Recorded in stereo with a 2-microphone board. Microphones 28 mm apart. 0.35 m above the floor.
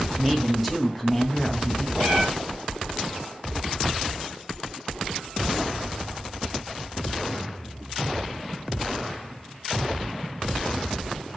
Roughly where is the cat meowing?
Right.